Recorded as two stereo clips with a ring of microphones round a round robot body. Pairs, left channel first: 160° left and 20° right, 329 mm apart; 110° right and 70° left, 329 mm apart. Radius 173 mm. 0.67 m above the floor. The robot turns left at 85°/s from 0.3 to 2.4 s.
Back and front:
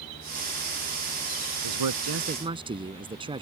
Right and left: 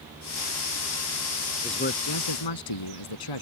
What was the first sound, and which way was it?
A man speaking, 35° right.